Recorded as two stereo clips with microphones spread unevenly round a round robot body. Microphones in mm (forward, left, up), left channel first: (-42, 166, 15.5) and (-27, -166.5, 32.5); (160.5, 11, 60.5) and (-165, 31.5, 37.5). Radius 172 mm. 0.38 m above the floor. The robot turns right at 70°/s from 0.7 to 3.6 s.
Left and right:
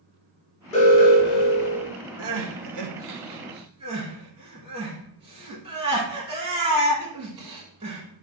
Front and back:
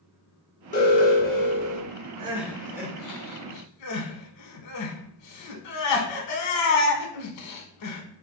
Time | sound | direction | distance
0.7 | an alarm | 50° left | 1.5 m
2.2 | crying | 110° right | 0.7 m